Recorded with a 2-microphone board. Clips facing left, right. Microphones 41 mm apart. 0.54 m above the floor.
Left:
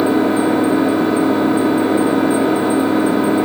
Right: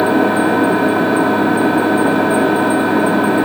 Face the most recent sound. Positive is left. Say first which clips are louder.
# right 1 dB
turn(degrees=-70)  # may be behind; listen again after turning